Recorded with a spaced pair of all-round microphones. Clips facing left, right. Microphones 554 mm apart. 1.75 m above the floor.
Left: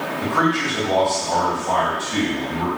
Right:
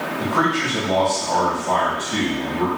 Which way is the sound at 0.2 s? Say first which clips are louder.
Left 1 dB; 55° right (ahead or behind).